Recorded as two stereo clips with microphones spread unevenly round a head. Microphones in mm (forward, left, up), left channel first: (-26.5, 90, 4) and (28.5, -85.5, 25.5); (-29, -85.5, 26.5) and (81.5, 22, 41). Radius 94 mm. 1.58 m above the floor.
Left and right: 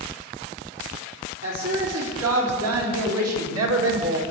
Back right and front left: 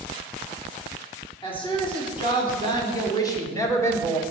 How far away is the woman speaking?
About 5.5 m.